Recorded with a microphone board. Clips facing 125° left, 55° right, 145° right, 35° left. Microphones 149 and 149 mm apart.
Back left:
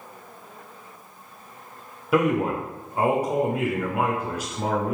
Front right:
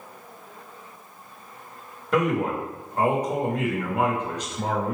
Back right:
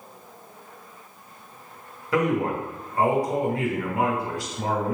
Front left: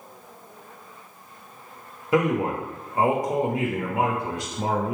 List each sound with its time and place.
2.1 s a man speaking: 55° left, 0.8 m